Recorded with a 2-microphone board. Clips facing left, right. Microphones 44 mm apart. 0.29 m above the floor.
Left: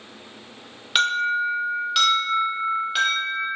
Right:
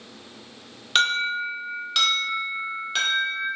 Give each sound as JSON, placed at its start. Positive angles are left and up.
{"t": 0.9, "sound": "an alarm", "side_deg": 5, "distance_m": 0.7}